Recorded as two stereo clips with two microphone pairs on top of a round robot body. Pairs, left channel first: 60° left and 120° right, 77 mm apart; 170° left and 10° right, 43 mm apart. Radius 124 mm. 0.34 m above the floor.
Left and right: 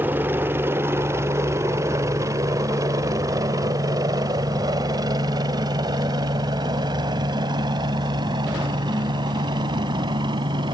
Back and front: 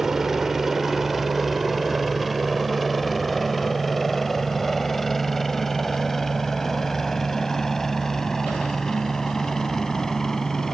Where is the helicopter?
70° right; by 10.8 s 105° right.